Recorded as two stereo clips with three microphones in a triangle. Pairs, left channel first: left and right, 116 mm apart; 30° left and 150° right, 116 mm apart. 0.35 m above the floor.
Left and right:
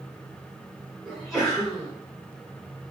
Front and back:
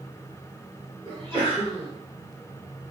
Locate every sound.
1.1 s a sneeze: straight ahead, 1.4 m